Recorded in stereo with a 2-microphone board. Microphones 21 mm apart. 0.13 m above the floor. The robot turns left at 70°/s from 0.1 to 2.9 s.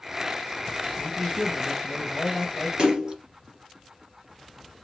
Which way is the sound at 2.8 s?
45° right (ahead or behind).